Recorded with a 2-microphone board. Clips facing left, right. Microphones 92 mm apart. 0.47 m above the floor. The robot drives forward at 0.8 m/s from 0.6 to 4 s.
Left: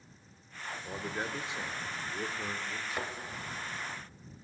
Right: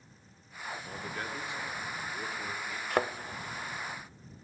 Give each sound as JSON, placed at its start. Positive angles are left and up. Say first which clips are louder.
{"t": 0.8, "sound": "a man speaking", "louder": "left 5 dB", "side_deg": 20, "distance_m": 1.4}
{"t": 2.9, "sound": "a thud", "louder": "right 10 dB", "side_deg": -60, "distance_m": 0.9}